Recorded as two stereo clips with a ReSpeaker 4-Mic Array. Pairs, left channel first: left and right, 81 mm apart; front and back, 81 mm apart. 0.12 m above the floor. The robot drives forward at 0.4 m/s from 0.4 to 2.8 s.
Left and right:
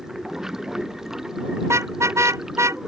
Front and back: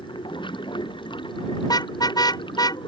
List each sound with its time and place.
0.0 s running water: 5° right
1.6 s a car horn: 35° right; by 2.8 s 40° right